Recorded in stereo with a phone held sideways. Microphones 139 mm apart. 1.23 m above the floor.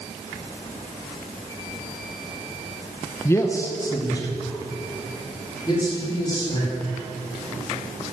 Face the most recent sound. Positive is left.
turn(degrees=30)  # may be behind; listen again after turning